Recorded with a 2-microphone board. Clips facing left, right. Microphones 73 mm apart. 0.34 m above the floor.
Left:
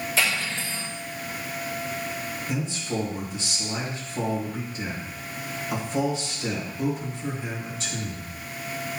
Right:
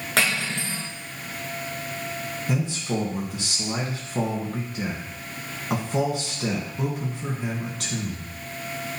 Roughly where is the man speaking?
Right.